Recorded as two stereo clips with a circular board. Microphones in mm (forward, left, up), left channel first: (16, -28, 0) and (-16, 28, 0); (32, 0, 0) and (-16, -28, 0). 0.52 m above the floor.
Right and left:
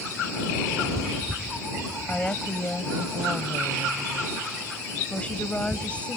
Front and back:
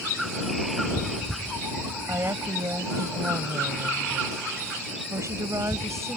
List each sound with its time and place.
2.1 s a woman speaking: 125° right